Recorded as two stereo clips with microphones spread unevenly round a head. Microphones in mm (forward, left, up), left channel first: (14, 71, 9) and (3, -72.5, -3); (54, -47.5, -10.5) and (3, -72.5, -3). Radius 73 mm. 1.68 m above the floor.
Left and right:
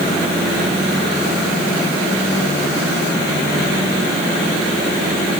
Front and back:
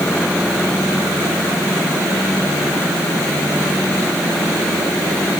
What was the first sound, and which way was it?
Only background noise.